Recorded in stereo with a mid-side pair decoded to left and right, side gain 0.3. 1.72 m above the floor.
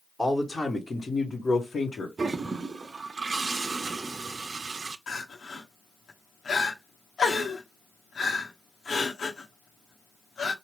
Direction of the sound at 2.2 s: 50° right.